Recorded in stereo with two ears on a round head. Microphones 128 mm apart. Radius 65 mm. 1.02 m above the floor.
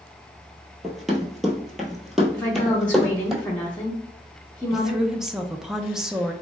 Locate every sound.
0.8 s running footsteps: centre (ahead or behind), 1.0 m
2.3 s a woman speaking: 10° left (ahead or behind), 0.9 m
4.7 s a woman speaking: 5° right (ahead or behind), 0.5 m